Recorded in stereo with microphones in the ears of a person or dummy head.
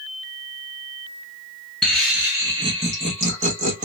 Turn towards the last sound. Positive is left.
turn(degrees=-40)  # may be behind; listen again after turning